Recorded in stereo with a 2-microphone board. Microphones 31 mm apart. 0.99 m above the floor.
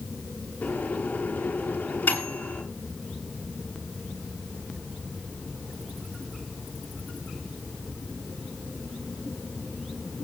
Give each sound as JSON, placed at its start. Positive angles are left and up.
{"t": 0.6, "sound": "a microwave", "side_deg": 75, "distance_m": 8.5}